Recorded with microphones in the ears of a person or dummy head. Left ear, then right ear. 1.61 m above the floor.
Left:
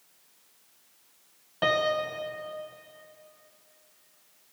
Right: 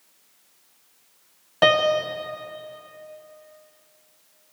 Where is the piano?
20° right (ahead or behind), 1.0 m.